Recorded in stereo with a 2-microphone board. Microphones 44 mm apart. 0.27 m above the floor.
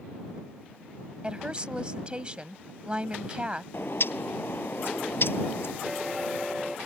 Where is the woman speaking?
25° right (ahead or behind).